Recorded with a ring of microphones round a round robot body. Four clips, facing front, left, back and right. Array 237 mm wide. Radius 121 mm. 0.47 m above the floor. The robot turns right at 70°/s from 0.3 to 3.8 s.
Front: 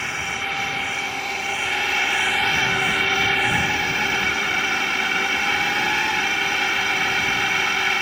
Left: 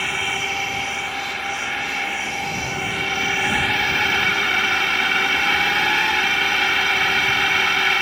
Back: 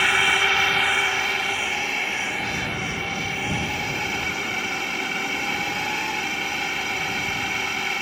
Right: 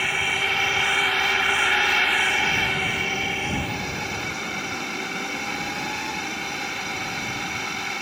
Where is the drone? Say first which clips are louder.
Left 1 dB, back 7 dB; straight behind; by 8.0 s 65° left.